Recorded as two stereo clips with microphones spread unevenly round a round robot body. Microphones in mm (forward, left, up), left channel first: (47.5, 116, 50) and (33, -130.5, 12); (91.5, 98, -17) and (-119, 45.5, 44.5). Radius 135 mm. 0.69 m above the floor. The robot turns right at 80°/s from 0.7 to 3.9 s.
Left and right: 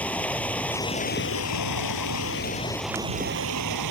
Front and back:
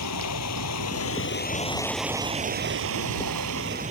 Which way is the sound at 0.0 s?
5° left.